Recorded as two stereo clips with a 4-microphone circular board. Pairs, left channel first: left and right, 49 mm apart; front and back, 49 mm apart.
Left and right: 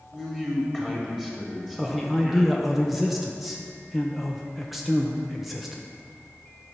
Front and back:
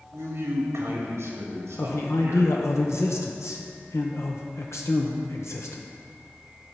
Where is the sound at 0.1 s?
165° right, 2.5 m.